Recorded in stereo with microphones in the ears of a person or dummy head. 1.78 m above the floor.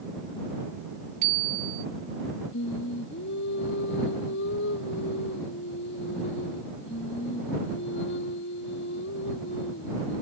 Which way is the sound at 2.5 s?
65° left (ahead or behind).